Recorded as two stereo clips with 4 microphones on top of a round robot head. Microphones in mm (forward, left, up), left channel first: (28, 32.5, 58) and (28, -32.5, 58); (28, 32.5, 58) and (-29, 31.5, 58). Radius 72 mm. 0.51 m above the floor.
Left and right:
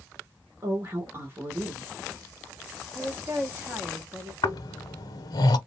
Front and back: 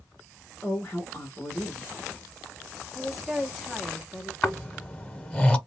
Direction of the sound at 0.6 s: 55° right.